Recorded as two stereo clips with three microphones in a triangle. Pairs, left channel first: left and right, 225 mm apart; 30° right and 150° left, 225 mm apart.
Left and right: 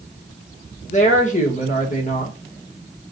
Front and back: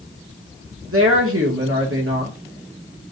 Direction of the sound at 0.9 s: 145° left.